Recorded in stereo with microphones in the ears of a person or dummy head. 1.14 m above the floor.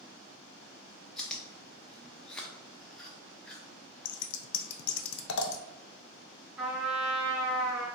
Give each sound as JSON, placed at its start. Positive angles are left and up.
{"t": 1.2, "sound": "chewing", "side_deg": 10, "distance_m": 0.6}
{"t": 4.0, "sound": "scissors", "side_deg": 70, "distance_m": 0.5}
{"t": 6.6, "sound": "a trumpet", "side_deg": -5, "distance_m": 1.4}